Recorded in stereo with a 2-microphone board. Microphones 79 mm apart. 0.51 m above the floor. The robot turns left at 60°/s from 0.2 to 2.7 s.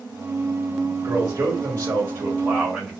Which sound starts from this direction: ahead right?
A man speaking, at 1.0 s.